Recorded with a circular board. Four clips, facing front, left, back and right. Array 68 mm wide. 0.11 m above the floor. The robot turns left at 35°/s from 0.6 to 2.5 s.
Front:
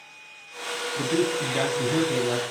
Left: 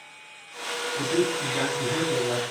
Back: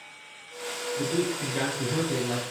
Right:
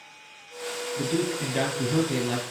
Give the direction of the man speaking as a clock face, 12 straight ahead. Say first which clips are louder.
Left 2 dB, front 4 dB; 12 o'clock.